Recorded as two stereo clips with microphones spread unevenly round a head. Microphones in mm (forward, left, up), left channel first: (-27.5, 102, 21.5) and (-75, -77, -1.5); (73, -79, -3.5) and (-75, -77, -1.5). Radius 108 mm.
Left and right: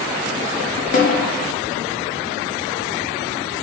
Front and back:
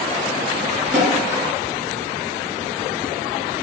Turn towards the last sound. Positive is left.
turn(degrees=105)